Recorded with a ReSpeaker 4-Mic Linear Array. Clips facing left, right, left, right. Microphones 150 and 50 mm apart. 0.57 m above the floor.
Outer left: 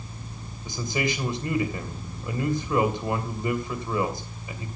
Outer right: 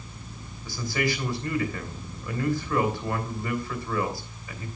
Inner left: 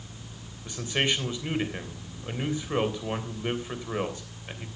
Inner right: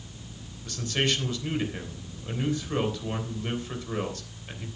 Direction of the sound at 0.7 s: 20° left (ahead or behind).